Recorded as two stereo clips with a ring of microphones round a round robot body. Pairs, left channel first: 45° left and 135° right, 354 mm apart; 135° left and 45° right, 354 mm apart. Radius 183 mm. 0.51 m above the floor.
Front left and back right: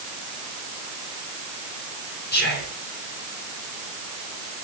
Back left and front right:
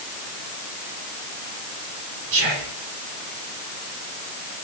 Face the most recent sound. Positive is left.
turn(degrees=-15)